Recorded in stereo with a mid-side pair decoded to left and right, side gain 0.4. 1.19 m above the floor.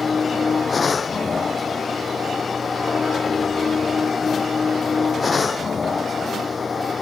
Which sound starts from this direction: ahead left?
A machine running, at 0.0 s.